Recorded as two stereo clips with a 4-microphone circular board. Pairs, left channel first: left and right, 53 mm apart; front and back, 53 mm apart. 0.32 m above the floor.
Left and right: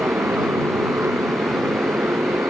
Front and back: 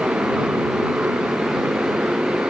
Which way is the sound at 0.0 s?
125° right.